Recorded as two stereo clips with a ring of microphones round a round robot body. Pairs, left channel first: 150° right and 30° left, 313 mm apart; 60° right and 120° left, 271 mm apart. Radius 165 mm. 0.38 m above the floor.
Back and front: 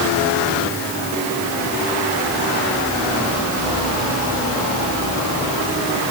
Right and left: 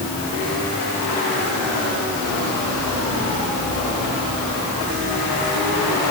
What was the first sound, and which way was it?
Only background noise.